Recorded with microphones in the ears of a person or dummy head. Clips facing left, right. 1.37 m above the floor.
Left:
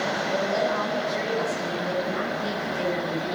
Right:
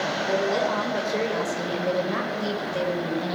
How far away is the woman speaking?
About 4.5 m.